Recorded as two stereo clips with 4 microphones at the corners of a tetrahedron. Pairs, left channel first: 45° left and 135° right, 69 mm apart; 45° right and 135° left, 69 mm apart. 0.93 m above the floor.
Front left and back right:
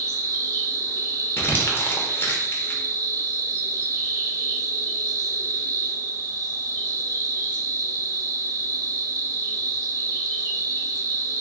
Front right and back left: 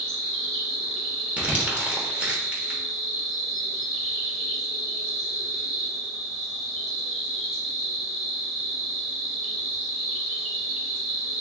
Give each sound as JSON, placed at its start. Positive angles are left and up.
{"t": 0.0, "sound": "an insect", "azimuth_deg": -135, "distance_m": 1.3}
{"t": 1.4, "sound": "crumpling", "azimuth_deg": 75, "distance_m": 0.8}